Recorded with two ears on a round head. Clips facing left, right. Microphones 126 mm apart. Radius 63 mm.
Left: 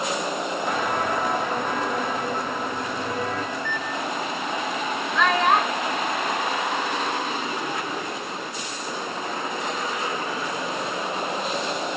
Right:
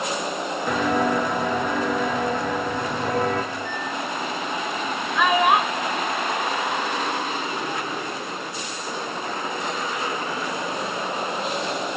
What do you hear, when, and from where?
0.7 s footsteps: 70° right (ahead or behind), 2.5 m; by 3.4 s 45° right (ahead or behind), 3.5 m
3.5 s a microwave: 55° left (ahead or behind), 2 m
5.2 s a child speaking: 10° right (ahead or behind), 1.2 m